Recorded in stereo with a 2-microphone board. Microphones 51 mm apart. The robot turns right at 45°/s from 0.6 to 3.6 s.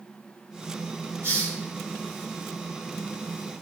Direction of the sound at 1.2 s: 60° right (ahead or behind).